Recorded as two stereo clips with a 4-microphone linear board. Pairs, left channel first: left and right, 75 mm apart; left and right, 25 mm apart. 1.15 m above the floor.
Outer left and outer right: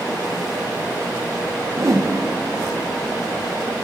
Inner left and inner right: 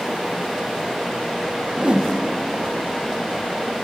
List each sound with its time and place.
1.8 s a whoosh: 40° right (ahead or behind), 0.9 m